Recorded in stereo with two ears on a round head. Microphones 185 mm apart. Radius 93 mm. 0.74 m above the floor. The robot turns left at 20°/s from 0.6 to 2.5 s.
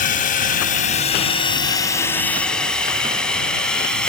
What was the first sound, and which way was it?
A drone, 40° left (ahead or behind).